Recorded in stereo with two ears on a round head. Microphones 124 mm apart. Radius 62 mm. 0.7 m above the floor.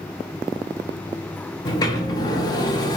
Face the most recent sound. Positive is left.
turn(degrees=30)  # may be behind; listen again after turning